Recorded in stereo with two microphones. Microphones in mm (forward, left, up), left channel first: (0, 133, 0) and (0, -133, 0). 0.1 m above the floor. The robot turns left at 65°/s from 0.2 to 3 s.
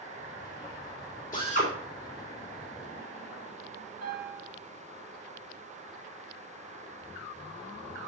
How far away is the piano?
About 5.5 m.